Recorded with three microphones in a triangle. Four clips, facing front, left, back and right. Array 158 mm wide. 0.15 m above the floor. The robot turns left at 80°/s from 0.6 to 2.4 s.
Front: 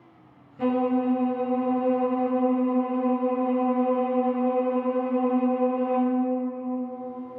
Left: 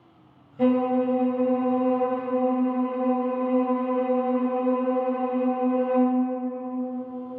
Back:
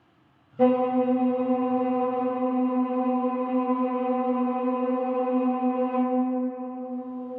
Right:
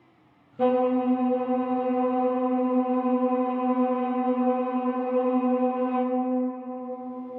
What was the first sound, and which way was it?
A violin, 160° right.